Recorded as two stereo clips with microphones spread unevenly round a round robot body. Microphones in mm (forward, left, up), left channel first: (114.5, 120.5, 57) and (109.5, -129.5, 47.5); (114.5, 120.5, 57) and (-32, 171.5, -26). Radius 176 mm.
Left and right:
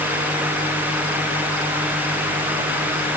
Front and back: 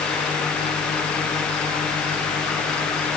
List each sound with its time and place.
Only background noise.